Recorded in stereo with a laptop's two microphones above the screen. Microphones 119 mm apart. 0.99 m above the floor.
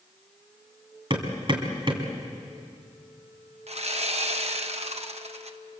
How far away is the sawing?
About 0.9 m.